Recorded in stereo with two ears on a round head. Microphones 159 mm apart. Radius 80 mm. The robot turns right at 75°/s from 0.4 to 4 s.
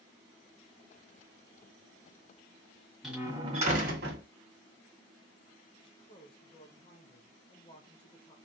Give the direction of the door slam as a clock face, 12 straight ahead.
6 o'clock.